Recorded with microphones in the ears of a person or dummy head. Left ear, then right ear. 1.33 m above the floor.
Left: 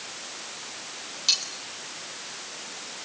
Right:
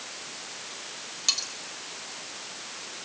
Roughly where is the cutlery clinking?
Centre.